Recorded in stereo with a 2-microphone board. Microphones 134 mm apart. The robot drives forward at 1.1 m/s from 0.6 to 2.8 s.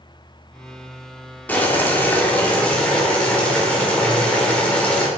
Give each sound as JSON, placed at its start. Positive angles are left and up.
{"t": 1.5, "sound": "boiling", "side_deg": 10, "distance_m": 1.2}